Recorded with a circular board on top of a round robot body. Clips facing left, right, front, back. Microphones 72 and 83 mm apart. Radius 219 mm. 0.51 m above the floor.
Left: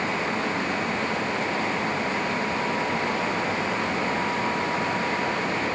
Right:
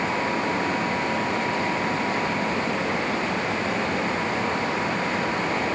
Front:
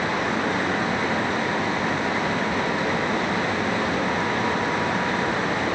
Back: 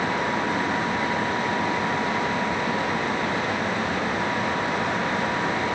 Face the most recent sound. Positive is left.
No sound to turn to.